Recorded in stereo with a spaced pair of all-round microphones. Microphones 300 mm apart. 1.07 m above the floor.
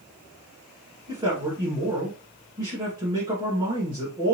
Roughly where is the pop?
No pop in this recording.